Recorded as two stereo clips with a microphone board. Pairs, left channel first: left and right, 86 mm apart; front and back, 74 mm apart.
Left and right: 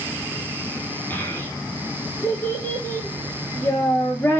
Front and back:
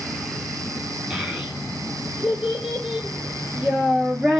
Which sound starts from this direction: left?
A child speaking, at 1.1 s.